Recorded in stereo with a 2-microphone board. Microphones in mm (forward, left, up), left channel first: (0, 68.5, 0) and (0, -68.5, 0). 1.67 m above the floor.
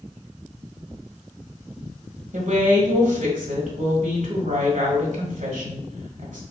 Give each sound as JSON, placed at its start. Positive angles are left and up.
{"t": 2.3, "sound": "a woman speaking", "side_deg": -75, "distance_m": 1.0}